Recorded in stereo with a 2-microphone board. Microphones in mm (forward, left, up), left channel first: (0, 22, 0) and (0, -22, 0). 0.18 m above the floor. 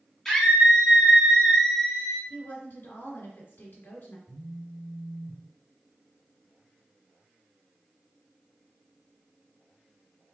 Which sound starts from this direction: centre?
A scream, at 0.2 s.